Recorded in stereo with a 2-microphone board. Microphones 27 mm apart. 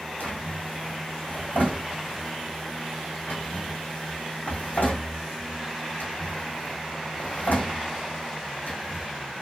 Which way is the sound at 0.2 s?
75° left (ahead or behind).